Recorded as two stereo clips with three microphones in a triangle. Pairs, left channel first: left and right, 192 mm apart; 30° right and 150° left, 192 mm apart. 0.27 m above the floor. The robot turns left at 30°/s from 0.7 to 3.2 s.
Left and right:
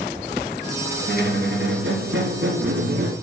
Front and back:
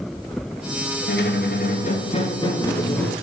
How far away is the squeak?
About 1.4 m.